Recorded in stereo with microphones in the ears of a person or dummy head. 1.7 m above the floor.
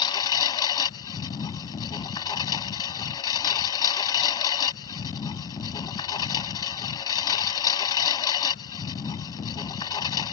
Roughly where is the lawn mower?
Left.